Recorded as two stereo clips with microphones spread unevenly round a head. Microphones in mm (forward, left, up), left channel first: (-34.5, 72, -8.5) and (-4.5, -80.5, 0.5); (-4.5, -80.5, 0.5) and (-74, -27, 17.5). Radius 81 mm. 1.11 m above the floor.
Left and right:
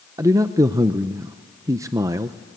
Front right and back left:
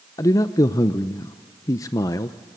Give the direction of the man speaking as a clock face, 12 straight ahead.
12 o'clock.